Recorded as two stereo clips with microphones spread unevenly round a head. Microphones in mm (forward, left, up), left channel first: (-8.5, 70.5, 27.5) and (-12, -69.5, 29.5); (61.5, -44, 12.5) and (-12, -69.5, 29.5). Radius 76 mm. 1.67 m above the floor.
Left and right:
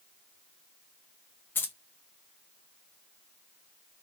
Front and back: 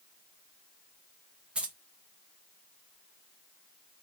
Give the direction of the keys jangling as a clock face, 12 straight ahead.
7 o'clock.